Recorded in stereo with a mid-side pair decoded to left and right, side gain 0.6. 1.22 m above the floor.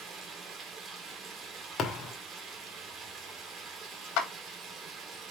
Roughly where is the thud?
Ahead left.